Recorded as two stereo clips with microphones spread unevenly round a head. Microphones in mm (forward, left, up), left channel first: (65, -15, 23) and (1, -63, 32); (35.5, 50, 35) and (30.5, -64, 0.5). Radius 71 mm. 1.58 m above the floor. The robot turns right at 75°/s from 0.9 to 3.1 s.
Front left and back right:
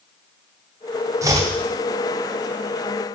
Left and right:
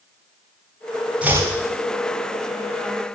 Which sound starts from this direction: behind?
Chopping, at 1.2 s.